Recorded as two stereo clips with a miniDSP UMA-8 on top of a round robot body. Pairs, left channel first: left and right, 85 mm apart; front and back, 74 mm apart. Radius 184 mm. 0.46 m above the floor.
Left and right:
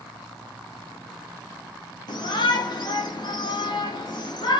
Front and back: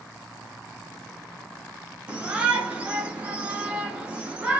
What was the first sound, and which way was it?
A shout, 110° left.